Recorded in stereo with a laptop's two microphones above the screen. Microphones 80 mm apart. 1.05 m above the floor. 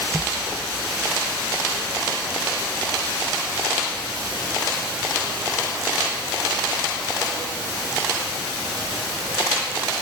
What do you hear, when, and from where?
Only background noise.